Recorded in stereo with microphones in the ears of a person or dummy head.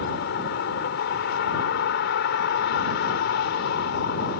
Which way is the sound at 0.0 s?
75° left (ahead or behind).